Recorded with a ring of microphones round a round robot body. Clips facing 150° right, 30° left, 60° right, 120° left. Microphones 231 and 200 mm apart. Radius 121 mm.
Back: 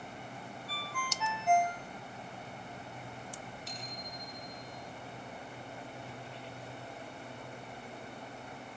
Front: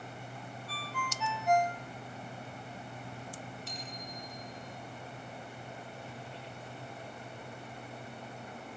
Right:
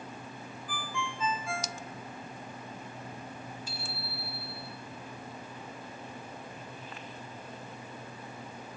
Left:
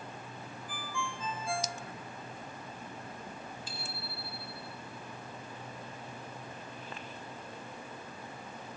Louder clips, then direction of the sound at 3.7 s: Front 1 dB, right 2 dB; 10° right.